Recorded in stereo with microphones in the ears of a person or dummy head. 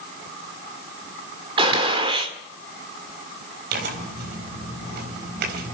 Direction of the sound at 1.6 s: 30° right (ahead or behind).